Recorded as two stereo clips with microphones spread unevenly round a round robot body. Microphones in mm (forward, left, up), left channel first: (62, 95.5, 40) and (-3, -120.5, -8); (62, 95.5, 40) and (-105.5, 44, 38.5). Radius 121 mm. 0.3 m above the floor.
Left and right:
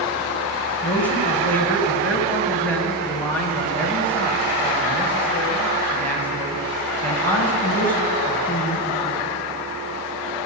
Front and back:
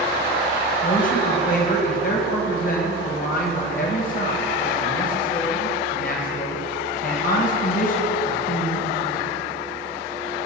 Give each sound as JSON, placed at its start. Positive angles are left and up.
{"t": 0.8, "sound": "a man speaking", "azimuth_deg": -15, "distance_m": 1.8}